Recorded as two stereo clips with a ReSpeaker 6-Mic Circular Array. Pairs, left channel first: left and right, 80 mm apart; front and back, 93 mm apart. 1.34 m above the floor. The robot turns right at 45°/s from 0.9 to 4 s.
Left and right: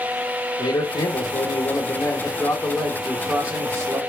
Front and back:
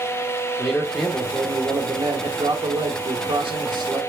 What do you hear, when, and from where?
0.6 s a man speaking: 90° left, 2 m; by 4.0 s 135° right, 2 m